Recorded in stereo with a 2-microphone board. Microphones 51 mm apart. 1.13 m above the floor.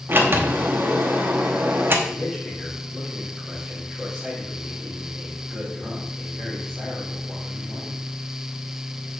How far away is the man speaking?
About 3.5 m.